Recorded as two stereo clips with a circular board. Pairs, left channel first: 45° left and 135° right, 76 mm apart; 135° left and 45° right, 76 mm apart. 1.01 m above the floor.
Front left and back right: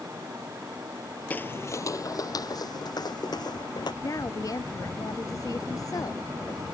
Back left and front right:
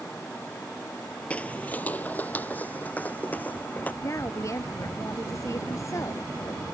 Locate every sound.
1.3 s footsteps: 85° left; by 3.9 s 65° left
4.0 s a woman speaking: 85° left